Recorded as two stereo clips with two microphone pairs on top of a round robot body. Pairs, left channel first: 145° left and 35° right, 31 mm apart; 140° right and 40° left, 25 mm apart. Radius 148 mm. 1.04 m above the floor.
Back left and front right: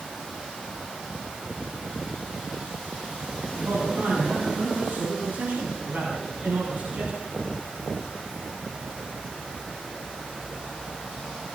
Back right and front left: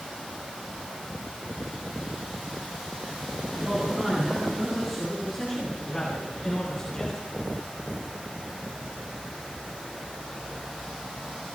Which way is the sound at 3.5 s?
35° right.